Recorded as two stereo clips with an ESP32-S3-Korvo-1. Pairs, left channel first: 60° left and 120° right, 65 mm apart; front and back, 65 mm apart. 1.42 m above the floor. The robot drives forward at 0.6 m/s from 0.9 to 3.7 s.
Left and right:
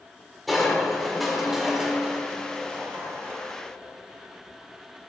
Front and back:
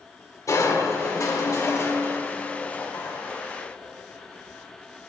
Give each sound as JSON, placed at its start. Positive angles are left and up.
{"t": 0.5, "sound": "crushing", "azimuth_deg": -30, "distance_m": 2.0}